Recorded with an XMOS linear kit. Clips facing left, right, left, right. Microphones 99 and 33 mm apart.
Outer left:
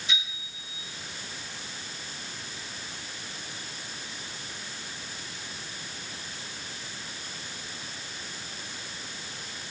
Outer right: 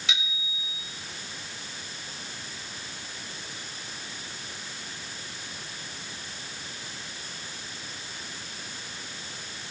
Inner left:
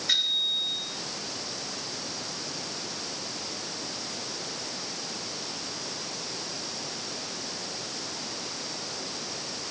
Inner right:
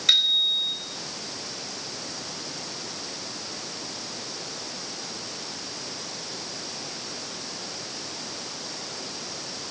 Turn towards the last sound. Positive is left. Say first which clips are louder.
# outer right 3 dB, inner right 5 dB
turn(degrees=-80)